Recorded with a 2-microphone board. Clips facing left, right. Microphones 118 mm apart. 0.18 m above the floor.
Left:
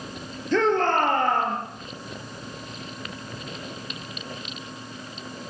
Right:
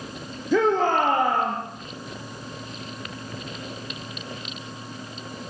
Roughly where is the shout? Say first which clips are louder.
Right 1 dB; centre.